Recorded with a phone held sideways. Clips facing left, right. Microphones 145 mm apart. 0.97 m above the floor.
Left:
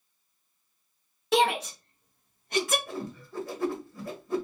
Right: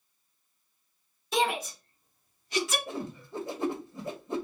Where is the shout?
60° left (ahead or behind), 1.7 m; by 2.8 s 45° left (ahead or behind), 1.2 m.